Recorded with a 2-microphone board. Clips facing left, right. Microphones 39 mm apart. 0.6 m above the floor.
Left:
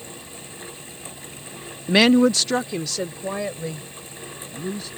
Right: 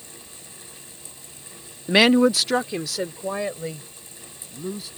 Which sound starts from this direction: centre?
A woman speaking, at 1.9 s.